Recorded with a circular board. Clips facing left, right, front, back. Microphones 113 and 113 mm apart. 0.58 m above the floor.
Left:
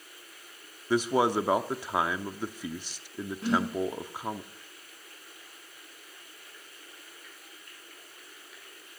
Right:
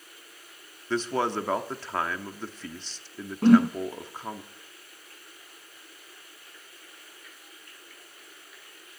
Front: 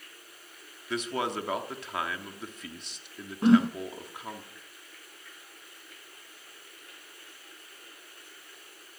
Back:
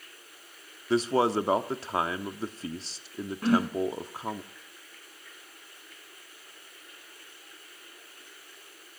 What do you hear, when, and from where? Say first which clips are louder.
0.9 s a man speaking: left 3 dB, back 7 dB; 160° left, 0.8 m
3.4 s a whoosh: right 11 dB, front 5 dB; 65° right, 1.1 m